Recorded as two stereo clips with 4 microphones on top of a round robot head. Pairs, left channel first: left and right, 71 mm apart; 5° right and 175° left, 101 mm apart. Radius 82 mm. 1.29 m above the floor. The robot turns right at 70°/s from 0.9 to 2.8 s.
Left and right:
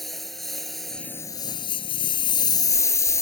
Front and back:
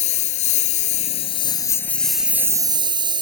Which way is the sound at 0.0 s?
Straight ahead.